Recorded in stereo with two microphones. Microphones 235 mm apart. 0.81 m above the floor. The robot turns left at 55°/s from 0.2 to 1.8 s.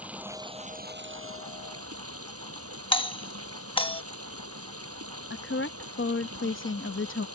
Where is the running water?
5° right; by 7.4 s 95° right.